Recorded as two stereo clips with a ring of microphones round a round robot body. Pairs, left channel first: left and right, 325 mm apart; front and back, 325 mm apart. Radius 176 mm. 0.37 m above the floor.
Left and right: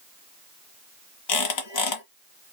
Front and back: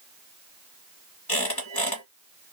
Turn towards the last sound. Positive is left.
turn(degrees=75)